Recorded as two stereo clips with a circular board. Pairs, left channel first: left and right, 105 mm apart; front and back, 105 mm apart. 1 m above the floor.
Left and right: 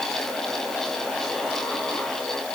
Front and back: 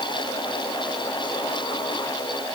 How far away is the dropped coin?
No dropped coin in this recording.